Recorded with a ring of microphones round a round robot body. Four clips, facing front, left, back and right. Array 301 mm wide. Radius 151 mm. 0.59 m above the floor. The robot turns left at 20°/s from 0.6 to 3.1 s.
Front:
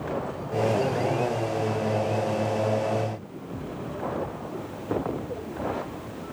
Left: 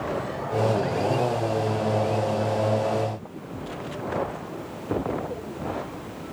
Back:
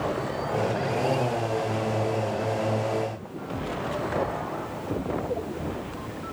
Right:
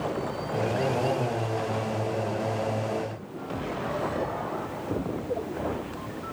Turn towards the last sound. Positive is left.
No sound to turn to.